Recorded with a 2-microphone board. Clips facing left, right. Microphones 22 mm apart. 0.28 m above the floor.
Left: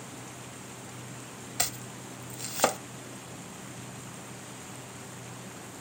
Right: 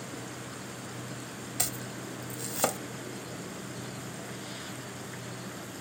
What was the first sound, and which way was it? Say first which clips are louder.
An insect: right 3 dB; 55° right (ahead or behind).